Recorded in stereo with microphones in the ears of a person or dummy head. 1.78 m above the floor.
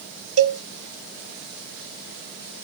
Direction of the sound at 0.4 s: 80° right.